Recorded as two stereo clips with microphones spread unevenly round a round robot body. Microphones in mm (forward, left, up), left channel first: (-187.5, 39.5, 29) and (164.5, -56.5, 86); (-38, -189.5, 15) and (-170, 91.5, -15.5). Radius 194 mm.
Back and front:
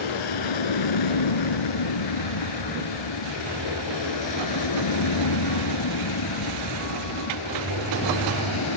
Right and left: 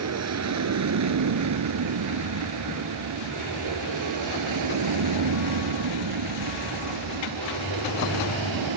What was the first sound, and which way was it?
An aircraft, 150° left.